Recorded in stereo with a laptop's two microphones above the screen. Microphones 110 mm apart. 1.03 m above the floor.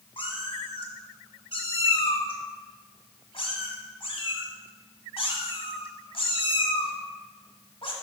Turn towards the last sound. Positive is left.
turn(degrees=55)  # may be behind; listen again after turning